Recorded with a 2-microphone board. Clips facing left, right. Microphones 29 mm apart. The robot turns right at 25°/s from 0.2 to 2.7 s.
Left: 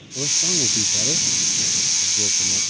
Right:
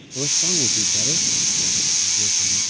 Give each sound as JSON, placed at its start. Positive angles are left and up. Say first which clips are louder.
{"t": 0.1, "sound": "a man speaking", "louder": "even", "azimuth_deg": -5}